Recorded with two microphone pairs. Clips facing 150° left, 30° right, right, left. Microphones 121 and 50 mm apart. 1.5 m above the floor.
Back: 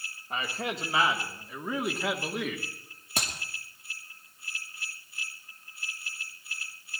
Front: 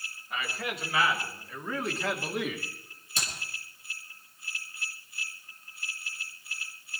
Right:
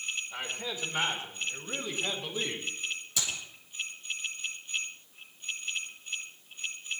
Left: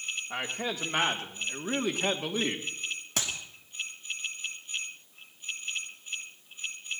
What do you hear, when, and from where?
0.3 s a man speaking: 100° left, 3.5 m; by 2.6 s 55° left, 2.5 m
3.2 s a clap: 125° left, 2.5 m